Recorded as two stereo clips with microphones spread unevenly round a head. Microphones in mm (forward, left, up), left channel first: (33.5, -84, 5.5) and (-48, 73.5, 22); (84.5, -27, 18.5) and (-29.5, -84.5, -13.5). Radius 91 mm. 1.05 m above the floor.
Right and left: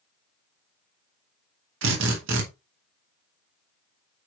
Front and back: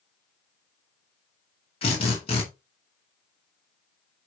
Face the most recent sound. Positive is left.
turn(degrees=95)